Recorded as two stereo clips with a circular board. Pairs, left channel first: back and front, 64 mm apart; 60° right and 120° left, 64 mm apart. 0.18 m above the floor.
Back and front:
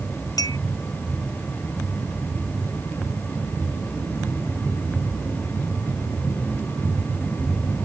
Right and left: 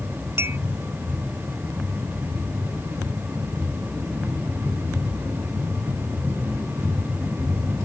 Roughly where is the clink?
Behind.